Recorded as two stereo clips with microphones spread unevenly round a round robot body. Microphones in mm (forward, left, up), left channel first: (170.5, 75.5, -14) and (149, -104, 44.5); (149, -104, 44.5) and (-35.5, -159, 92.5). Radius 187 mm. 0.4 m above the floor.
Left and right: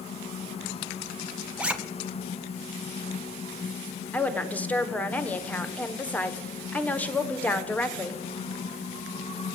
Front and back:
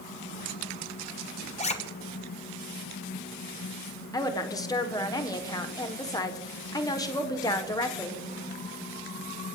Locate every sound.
1.6 s a zipper: 5° left, 1.8 m
4.1 s a woman speaking: 40° left, 1.4 m